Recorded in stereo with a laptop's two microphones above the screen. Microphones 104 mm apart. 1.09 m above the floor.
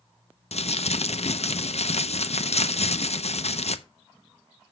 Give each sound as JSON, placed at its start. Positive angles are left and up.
{"t": 0.5, "sound": "crumpling", "side_deg": 75, "distance_m": 0.6}